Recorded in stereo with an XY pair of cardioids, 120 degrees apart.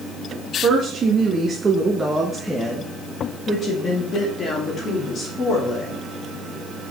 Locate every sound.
0.6 s a woman speaking: 50° right, 1.6 m; by 6.0 s 55° left, 3 m